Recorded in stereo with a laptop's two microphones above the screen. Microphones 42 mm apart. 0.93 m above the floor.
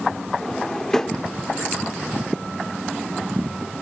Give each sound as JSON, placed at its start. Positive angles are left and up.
{"t": 0.4, "sound": "a drawer", "side_deg": 10, "distance_m": 0.7}